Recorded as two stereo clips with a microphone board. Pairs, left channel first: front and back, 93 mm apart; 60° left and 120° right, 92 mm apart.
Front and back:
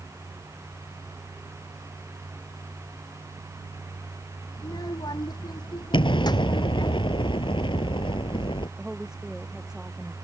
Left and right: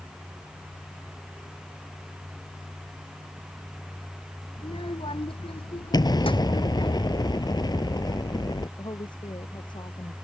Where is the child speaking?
40° left.